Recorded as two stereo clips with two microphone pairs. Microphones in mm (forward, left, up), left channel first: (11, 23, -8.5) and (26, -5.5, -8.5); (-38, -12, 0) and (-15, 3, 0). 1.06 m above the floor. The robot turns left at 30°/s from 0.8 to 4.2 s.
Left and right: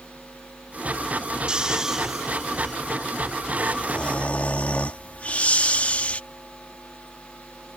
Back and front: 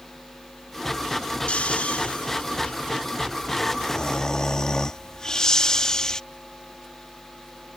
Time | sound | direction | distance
1.5 | snoring | 120° right | ?